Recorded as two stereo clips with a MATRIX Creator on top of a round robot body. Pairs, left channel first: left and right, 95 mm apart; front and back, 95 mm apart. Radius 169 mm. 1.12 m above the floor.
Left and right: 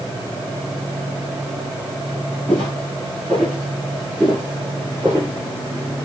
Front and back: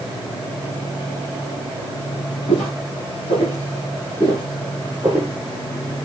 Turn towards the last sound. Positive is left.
turn(degrees=-135)